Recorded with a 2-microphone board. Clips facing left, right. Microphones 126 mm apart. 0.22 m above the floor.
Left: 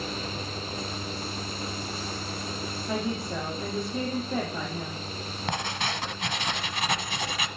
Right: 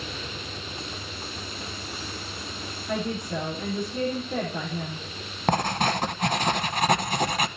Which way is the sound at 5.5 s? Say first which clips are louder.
Right 8 dB; 45° right (ahead or behind).